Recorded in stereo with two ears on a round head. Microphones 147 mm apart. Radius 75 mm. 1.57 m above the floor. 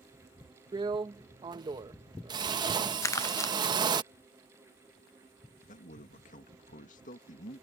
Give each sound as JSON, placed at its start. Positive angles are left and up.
{"t": 0.7, "sound": "a drill", "side_deg": -25}
{"t": 3.0, "sound": "crumpling", "side_deg": 20}
{"t": 5.7, "sound": "a man speaking", "side_deg": 45}